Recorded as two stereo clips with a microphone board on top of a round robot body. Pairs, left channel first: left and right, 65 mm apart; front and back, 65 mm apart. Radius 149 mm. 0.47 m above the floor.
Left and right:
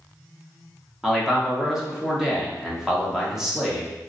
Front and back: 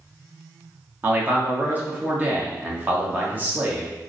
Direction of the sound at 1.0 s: 165° right.